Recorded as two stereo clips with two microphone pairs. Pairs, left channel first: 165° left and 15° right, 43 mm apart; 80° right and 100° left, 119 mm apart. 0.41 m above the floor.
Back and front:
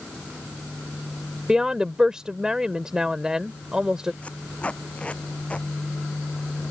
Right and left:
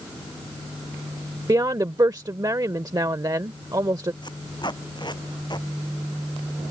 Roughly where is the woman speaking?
Ahead left.